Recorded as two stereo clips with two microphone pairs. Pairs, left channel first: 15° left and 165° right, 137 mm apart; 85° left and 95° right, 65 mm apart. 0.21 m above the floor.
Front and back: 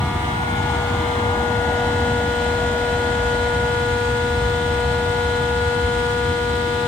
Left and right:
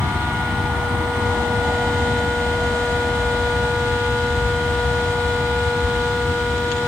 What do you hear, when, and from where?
0.0 s an aircraft: 45° right; by 6.9 s 165° right